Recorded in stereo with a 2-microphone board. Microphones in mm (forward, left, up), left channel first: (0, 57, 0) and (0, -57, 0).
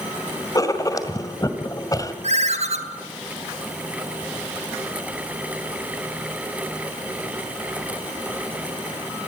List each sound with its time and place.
0.6 s writing: 30° left (ahead or behind), 2 m
2.2 s a ringtone: 75° right (ahead or behind), 2.5 m